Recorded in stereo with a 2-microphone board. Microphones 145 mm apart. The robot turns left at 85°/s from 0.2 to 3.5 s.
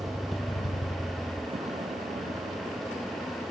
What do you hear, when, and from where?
0.0 s a vehicle: 25° right (ahead or behind); by 3.5 s 40° left (ahead or behind)